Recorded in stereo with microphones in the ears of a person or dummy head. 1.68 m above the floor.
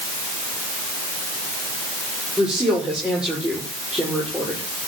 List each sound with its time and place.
2.4 s a woman speaking: 5° right (ahead or behind), 5.5 m